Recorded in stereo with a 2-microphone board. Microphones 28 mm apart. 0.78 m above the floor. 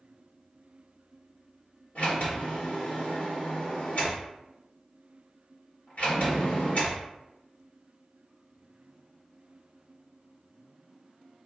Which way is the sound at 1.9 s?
70° left (ahead or behind).